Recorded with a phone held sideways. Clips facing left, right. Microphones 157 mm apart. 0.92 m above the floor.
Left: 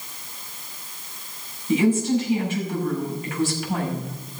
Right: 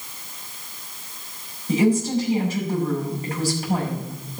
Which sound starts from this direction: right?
A woman speaking, at 1.7 s.